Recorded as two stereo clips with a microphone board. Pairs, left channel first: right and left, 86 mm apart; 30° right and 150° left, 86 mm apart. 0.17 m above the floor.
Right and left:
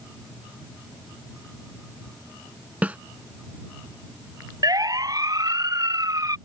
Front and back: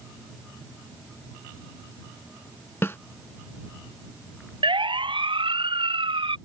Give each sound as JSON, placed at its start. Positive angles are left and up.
{"t": 2.8, "sound": "a snare drum", "azimuth_deg": 20}
{"t": 4.6, "sound": "a siren", "azimuth_deg": 135}